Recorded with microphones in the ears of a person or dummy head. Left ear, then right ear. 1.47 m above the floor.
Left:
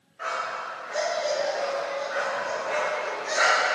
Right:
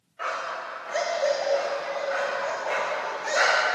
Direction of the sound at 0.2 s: 25° right (ahead or behind).